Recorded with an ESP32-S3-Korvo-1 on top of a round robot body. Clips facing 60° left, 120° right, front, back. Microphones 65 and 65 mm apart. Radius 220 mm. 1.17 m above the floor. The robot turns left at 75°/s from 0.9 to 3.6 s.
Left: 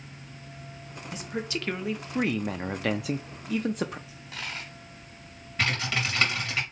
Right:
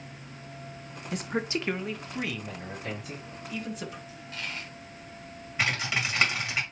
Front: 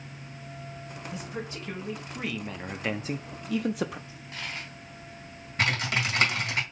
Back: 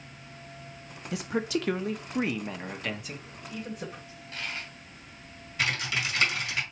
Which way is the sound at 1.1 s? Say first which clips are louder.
Right 3 dB, back 9 dB; 155° right.